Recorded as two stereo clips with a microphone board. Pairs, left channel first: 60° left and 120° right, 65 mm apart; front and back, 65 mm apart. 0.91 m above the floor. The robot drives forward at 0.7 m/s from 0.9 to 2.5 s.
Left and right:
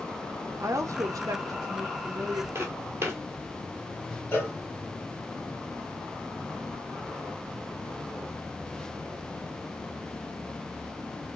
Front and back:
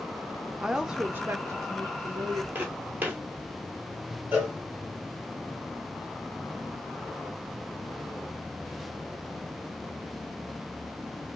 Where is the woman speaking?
100° right, 0.5 m; by 2.5 s 160° right, 1.3 m.